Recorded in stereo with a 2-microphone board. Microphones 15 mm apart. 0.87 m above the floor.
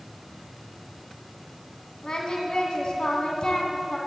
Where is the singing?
55° left (ahead or behind), 2 m.